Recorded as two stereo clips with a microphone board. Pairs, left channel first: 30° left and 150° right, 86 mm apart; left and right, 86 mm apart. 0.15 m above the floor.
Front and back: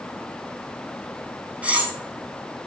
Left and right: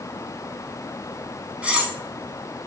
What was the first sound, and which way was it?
Cutlery clinking, 125° right.